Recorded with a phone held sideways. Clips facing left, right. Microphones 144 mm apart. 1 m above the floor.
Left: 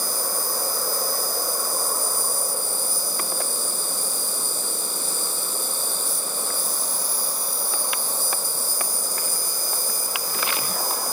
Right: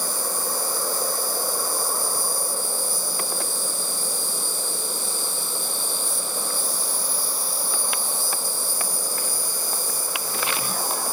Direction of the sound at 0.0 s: 40° left (ahead or behind).